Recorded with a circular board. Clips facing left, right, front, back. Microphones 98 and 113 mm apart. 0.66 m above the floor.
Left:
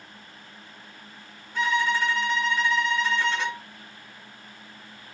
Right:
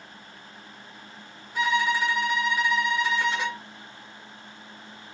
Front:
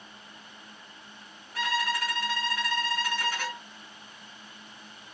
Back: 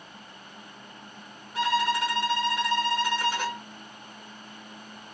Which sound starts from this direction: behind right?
A violin, at 1.6 s.